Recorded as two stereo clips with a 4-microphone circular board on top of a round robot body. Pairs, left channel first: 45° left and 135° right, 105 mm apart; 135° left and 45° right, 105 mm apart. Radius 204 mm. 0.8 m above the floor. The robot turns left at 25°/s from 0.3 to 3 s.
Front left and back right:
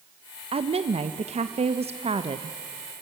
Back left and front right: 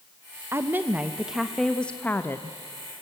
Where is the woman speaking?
110° right, 1.0 m; by 2.6 s 165° right, 1.0 m.